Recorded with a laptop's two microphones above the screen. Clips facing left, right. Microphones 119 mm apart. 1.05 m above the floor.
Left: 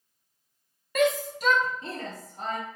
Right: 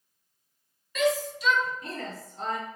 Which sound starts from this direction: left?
A shout, at 0.9 s.